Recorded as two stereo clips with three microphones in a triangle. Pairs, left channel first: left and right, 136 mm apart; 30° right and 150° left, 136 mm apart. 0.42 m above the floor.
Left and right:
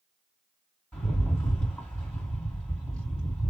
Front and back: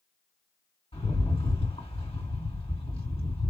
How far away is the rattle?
About 3.5 m.